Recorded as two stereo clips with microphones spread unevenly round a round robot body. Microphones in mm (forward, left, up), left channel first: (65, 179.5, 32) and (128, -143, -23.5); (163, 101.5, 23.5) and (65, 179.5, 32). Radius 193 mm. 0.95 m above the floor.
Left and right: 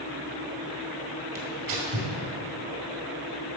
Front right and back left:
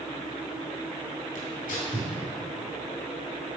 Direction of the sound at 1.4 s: 55° right.